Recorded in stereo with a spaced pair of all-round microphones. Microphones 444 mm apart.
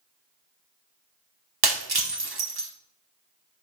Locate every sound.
1.6 s breaking glass: 55° right (ahead or behind), 1.2 m